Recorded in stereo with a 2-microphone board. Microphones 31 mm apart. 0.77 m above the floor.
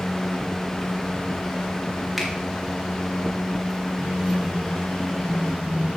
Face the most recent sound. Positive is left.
turn(degrees=-70)  # may be behind; listen again after turning